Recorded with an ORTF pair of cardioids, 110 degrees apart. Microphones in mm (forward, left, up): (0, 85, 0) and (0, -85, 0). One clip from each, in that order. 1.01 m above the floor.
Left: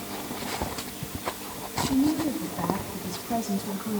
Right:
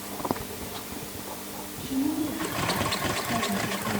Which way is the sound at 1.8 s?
30° left.